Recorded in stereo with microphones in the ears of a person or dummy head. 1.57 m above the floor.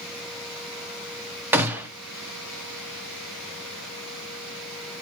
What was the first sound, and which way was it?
A gunshot, 10° right (ahead or behind).